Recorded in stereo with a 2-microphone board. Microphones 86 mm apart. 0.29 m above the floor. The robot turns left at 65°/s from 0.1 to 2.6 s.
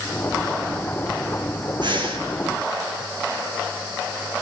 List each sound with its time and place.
1.8 s breathing: 65° right (ahead or behind), 5.5 m; by 2.2 s 90° right, 5.5 m